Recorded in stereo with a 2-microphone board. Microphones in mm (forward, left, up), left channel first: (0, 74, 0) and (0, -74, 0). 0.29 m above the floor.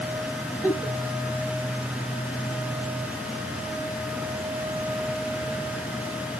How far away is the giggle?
About 1.2 m.